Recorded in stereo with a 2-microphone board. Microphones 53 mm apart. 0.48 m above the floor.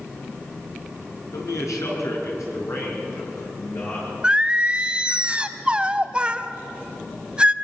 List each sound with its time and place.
1.3 s a man speaking: 80° left, 5.5 m; by 4.1 s 60° left (ahead or behind), 7 m
4.2 s singing: 20° right (ahead or behind), 0.8 m